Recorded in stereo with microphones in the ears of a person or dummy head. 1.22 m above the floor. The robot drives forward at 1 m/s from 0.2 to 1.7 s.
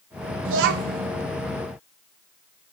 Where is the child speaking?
75° right (ahead or behind), 0.6 m; by 1.1 s 45° right (ahead or behind), 0.9 m.